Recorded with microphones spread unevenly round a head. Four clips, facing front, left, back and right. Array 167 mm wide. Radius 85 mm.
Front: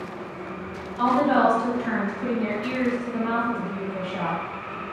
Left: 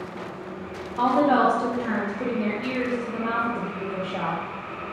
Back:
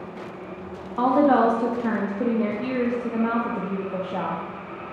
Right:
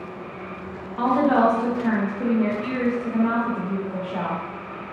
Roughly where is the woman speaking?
Behind.